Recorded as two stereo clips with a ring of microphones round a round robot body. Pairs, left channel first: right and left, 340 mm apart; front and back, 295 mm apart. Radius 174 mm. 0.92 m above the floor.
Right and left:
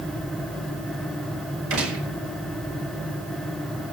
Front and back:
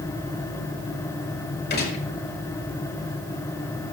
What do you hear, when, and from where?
1.7 s a gunshot: 55° left, 5 m